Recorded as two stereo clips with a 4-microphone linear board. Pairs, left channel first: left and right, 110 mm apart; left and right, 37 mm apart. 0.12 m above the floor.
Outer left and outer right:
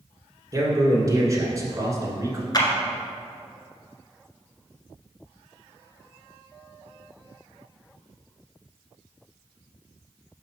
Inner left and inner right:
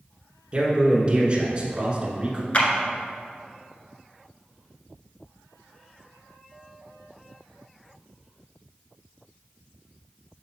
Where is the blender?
No blender in this recording.